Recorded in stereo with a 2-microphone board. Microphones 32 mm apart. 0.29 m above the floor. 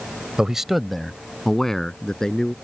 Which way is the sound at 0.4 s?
20° right (ahead or behind).